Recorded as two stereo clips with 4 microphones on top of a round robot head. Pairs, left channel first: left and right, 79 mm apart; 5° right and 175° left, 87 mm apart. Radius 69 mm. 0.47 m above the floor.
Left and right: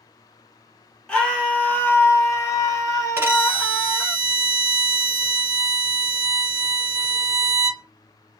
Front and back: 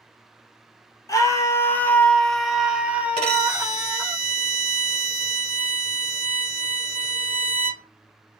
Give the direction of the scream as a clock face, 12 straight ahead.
11 o'clock.